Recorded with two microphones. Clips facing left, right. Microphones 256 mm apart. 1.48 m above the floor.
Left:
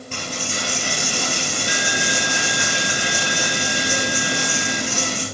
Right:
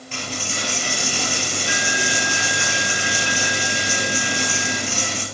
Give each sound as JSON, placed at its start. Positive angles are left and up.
{"t": 0.1, "sound": "a dropped coin", "side_deg": 45, "distance_m": 2.5}